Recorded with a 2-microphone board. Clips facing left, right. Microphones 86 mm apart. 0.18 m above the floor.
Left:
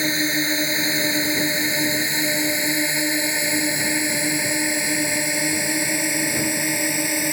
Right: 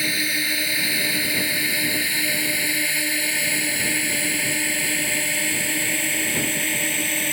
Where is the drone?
25° left (ahead or behind); by 7.3 s 15° left (ahead or behind).